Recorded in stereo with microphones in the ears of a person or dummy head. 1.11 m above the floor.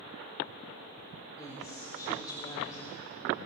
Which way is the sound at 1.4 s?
20° left (ahead or behind).